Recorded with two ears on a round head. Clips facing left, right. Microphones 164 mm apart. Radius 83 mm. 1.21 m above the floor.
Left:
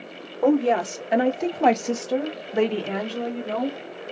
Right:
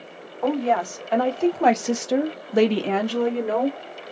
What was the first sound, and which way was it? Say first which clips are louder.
A woman speaking: left 2 dB; 35° left (ahead or behind).